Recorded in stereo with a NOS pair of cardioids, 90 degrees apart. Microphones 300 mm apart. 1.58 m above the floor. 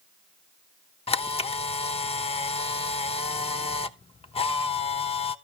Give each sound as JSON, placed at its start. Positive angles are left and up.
{"t": 1.1, "sound": "a camera shutter", "azimuth_deg": 20, "distance_m": 0.8}